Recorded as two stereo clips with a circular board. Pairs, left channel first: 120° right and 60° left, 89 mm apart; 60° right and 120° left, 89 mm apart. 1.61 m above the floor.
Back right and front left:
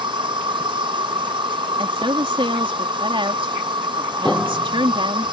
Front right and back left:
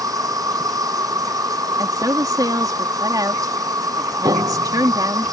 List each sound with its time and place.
0.0 s an insect: 75° left
1.8 s a woman speaking: 75° left
4.2 s a piano: 155° left